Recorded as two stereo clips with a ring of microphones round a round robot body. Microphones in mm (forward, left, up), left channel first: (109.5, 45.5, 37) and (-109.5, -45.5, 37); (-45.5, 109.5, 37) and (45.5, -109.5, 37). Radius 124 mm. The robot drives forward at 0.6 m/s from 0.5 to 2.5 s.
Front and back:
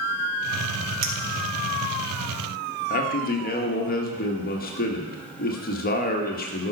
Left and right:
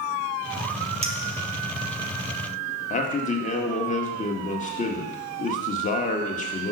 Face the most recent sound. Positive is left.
turn(degrees=60)